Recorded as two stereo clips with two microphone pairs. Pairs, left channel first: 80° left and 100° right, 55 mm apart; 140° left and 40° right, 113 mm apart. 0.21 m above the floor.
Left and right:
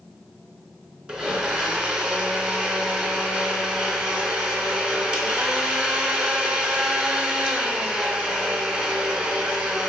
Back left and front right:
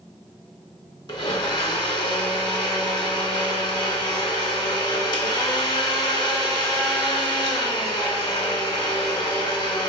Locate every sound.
1.1 s a blender: 175° right, 0.5 m